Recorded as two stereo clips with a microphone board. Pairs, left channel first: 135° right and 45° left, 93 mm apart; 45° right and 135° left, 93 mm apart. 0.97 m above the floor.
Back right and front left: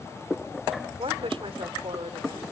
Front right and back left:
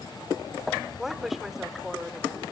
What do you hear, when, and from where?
1.0 s a woman speaking: 50° left, 3 m